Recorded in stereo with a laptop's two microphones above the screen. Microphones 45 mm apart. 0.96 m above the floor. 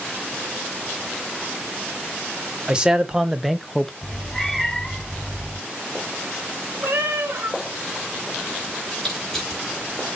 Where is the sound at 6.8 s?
60° right (ahead or behind), 1.8 m.